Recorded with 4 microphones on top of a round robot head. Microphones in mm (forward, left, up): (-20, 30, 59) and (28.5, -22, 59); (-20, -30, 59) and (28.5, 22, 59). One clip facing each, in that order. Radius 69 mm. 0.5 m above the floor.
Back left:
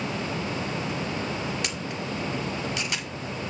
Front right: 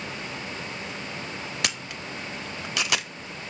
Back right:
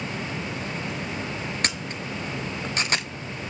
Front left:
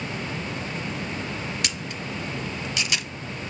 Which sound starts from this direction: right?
A camera shutter, at 1.6 s.